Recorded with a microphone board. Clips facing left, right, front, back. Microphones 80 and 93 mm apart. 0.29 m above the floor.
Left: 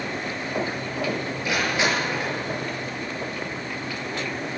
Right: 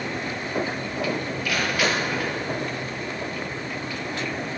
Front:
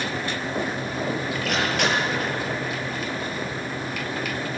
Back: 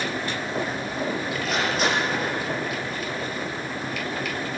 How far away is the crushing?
About 7 m.